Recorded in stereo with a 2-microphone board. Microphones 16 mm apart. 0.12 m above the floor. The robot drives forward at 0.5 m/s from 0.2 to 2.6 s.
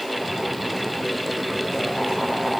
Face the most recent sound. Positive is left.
No sound to turn to.